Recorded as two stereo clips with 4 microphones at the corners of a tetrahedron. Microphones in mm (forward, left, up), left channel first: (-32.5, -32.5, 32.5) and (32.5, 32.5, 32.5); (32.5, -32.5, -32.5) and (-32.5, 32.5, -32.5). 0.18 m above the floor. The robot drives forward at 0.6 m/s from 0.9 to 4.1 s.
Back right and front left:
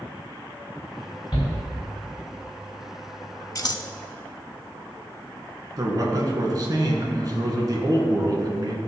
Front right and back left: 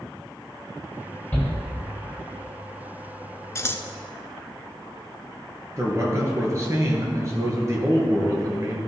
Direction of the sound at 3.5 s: 90° right.